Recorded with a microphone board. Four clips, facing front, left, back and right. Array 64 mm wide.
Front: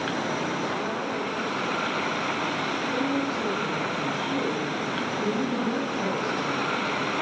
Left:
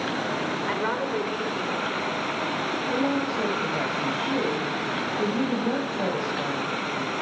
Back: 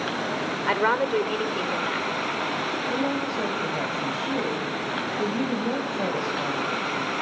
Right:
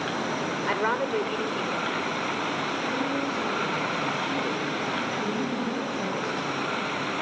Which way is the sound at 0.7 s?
170° right.